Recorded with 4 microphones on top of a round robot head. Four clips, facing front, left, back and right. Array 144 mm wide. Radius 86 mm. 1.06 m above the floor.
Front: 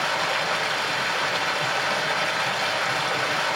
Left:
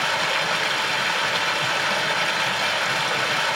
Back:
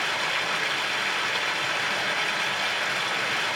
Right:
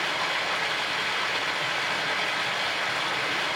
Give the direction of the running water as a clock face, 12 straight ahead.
11 o'clock.